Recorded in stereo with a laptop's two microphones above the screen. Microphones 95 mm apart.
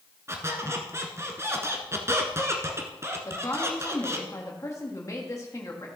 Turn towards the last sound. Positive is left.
turn(degrees=35)  # may be behind; listen again after turning